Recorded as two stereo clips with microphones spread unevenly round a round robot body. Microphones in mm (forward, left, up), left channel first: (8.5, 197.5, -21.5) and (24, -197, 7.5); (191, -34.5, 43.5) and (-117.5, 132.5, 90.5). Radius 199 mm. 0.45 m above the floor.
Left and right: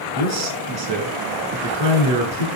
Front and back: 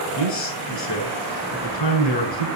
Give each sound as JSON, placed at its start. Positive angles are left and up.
{"t": 0.1, "sound": "a man speaking", "azimuth_deg": -55, "distance_m": 7.0}